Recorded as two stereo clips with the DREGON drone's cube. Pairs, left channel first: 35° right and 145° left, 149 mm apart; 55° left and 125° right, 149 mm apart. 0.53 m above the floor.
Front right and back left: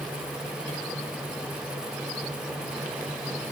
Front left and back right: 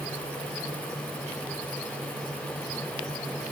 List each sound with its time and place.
Only background noise.